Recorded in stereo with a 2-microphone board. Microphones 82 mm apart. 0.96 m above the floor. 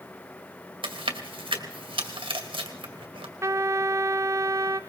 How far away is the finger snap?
I don't hear a finger snap.